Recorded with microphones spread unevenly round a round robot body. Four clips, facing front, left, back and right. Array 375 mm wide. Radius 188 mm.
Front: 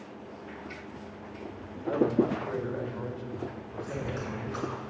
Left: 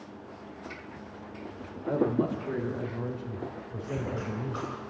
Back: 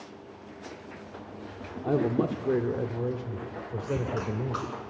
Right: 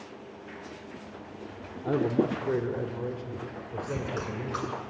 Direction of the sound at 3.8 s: 130° right.